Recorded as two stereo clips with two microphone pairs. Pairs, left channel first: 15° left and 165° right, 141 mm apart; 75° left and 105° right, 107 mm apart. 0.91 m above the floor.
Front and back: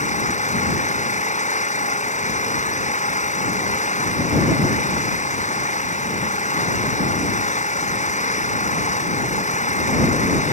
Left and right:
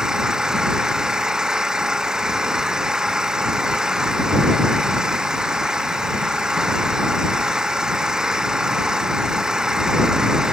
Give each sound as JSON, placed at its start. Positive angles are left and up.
{"t": 0.0, "sound": "an engine running", "azimuth_deg": -20}